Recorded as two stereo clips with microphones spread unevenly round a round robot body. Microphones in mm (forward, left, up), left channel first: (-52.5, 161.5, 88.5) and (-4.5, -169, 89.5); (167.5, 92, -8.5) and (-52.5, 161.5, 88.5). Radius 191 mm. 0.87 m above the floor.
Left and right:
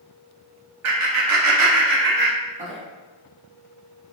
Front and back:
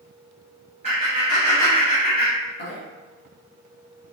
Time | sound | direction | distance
0.8 | laughter | 115° right | 0.9 m